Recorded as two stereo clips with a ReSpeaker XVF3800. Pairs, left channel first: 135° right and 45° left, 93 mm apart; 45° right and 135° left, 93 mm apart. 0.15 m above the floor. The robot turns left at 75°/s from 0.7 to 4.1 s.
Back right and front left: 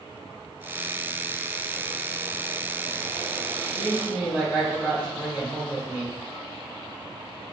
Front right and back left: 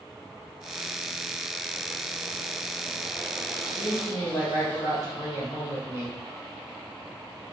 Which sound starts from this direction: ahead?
A woman speaking, at 3.7 s.